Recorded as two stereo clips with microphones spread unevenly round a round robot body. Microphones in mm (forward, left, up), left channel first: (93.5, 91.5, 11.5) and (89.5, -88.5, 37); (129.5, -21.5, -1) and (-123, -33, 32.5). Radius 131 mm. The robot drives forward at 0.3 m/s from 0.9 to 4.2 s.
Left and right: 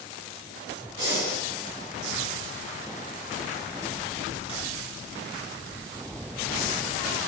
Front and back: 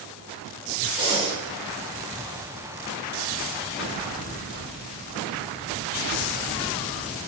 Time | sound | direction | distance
1.0 | breathing | 105° right | 1.0 m